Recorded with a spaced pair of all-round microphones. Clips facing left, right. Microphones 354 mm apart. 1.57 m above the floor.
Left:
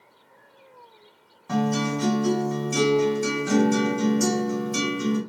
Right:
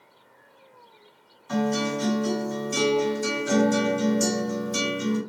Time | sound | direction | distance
1.5 | a guitar | 70° left (ahead or behind) | 2 m